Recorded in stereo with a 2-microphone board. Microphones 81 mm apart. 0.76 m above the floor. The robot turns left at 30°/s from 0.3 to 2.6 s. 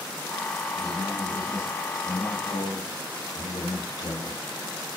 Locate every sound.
0.8 s a man speaking: 175° left, 4.5 m; by 4.4 s 120° left, 4.5 m